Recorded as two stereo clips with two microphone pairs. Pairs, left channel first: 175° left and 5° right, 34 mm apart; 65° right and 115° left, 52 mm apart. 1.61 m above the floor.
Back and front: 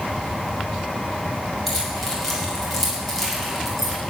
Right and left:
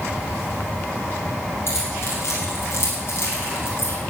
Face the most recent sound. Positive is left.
turn(degrees=-95)